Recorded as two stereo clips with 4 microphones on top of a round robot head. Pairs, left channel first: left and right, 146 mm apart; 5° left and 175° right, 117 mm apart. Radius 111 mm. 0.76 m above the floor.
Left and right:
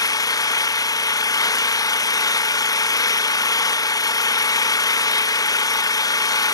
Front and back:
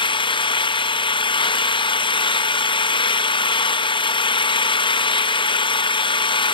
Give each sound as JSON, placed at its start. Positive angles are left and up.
{"t": 0.0, "sound": "an engine running", "azimuth_deg": 30, "distance_m": 0.8}